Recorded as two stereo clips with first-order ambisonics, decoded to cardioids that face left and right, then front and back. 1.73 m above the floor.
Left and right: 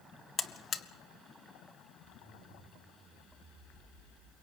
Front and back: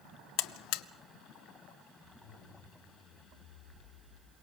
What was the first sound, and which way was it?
A buzzer, 25° left.